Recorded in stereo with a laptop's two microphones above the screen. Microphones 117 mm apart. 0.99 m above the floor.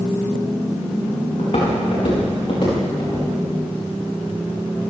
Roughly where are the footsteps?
Left.